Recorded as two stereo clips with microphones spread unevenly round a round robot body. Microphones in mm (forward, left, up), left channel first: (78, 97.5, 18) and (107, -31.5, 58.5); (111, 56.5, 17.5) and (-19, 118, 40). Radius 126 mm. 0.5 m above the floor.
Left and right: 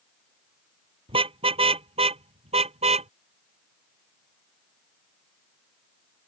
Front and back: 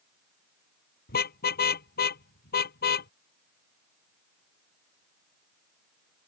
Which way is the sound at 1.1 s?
30° right.